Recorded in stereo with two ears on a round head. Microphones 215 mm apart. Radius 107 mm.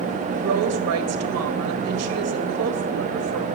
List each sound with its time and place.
0.4 s a woman speaking: 70° right (ahead or behind), 2 m